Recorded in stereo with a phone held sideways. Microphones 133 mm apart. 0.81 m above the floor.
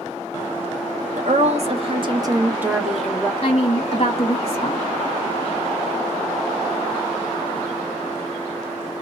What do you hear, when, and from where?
1.2 s a woman speaking: 60° right (ahead or behind), 1.0 m; by 3.3 s 10° left (ahead or behind), 0.9 m
3.4 s a woman speaking: 45° left (ahead or behind), 0.9 m